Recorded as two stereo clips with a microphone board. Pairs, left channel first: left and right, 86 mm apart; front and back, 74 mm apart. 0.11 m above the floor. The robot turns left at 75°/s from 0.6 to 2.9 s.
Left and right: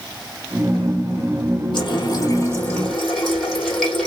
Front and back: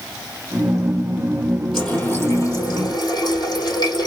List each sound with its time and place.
1.7 s a running tap: 95° left, 2.5 m; by 4.1 s 5° left, 2.5 m